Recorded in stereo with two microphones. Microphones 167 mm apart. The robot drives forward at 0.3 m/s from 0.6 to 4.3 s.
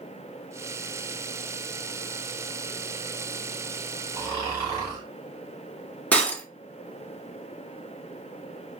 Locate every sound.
4.1 s snoring: 20° right (ahead or behind), 2.5 m
6.1 s breaking glass: 10° left (ahead or behind), 1.9 m